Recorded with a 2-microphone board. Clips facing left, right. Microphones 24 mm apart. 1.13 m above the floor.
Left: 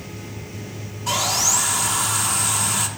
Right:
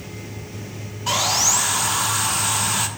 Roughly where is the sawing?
Right.